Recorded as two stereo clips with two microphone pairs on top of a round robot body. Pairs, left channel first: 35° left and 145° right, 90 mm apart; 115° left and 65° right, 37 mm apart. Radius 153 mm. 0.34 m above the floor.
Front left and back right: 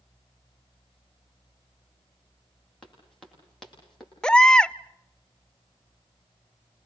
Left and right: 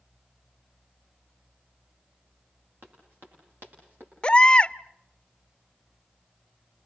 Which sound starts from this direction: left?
A baby crying, at 4.2 s.